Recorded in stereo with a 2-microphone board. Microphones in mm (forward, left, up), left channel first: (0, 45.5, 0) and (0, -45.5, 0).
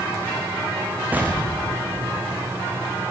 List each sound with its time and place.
1.1 s an explosion: 20° right (ahead or behind), 5.5 m